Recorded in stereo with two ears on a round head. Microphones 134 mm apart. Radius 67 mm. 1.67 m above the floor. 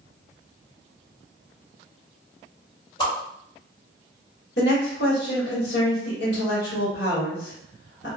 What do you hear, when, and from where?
3.0 s a whoosh: 35° left (ahead or behind), 1.8 m
4.6 s a woman speaking: 70° left (ahead or behind), 1.5 m